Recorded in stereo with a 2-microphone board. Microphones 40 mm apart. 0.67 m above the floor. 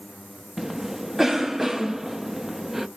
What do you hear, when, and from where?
0.6 s a cough: 10° right (ahead or behind), 0.5 m